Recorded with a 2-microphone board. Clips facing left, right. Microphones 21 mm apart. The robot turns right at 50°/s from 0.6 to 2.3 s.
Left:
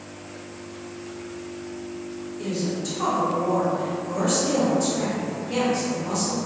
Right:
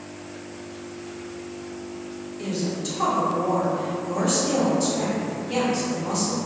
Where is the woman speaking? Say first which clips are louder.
Even; 15° right (ahead or behind), 0.9 m.